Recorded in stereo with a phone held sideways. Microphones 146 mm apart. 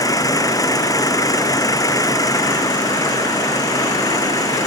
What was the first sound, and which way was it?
An engine running, 25° left (ahead or behind).